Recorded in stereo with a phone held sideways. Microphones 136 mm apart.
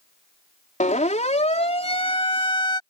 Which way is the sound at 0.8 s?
70° left (ahead or behind).